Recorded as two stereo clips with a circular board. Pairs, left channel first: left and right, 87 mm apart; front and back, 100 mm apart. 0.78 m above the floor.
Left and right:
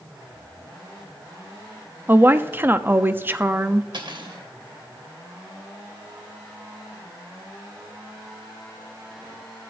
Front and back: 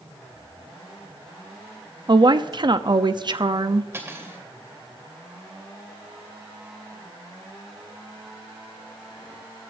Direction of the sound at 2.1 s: 150° right.